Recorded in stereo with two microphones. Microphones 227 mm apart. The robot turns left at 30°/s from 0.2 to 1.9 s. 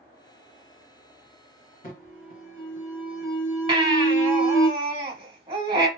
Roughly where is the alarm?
Left.